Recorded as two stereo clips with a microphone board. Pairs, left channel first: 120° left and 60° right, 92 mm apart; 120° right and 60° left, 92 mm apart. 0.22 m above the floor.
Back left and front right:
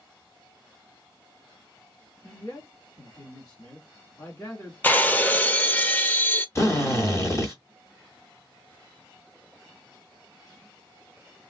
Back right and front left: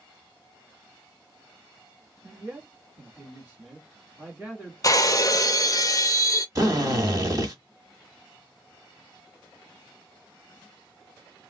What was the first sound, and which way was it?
A man speaking, 115° left.